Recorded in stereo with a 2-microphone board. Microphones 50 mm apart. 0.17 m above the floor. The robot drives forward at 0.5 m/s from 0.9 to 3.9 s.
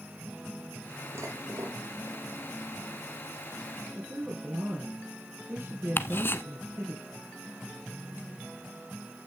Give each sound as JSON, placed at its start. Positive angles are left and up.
{"t": 1.1, "sound": "dishes clattering", "side_deg": -70, "distance_m": 3.5}
{"t": 4.0, "sound": "a woman speaking", "side_deg": -45, "distance_m": 4.0}
{"t": 6.0, "sound": "ticking", "side_deg": 50, "distance_m": 0.9}